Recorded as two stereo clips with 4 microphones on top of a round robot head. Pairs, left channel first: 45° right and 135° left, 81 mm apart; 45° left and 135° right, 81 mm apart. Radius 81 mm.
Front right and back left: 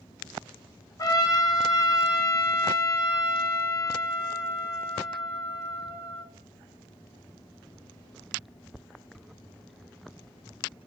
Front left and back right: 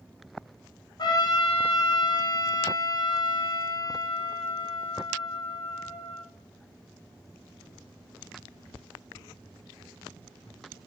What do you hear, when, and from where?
1.0 s a trumpet: 5° left, 1.8 m